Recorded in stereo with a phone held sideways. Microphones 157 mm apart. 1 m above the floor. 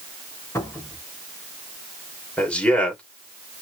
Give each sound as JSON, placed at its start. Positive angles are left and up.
{"t": 0.6, "sound": "a cupboard door", "side_deg": 20, "distance_m": 4.0}
{"t": 2.4, "sound": "a man speaking", "side_deg": 5, "distance_m": 2.5}